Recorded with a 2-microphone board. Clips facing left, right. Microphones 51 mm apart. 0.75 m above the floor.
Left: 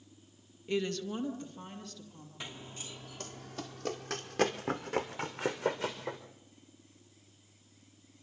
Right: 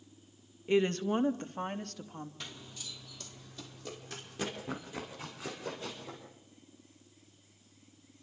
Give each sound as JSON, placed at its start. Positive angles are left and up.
{"t": 0.7, "sound": "a woman speaking", "side_deg": -20, "distance_m": 0.9}
{"t": 2.4, "sound": "running footsteps", "side_deg": 20, "distance_m": 0.9}